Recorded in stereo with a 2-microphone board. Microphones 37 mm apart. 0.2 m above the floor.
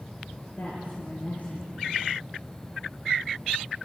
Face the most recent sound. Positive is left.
turn(degrees=60)  # may be behind; listen again after turning